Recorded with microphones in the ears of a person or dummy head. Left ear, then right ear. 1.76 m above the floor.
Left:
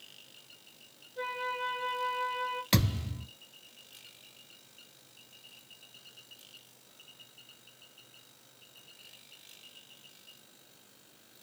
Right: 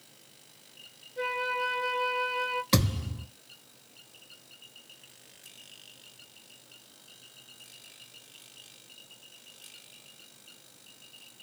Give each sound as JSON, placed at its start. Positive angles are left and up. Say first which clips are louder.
{"t": 1.2, "sound": "a flute", "louder": "right 5 dB", "side_deg": -5, "distance_m": 0.9}
{"t": 2.7, "sound": "a thud", "louder": "right 3 dB", "side_deg": 15, "distance_m": 1.6}